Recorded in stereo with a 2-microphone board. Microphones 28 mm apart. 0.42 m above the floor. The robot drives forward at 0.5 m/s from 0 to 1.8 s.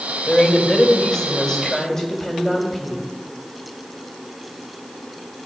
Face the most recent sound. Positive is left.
turn(degrees=25)  # may be behind; listen again after turning